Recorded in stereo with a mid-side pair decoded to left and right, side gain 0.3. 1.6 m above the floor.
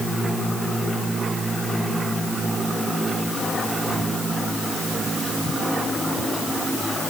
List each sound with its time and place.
Only background noise.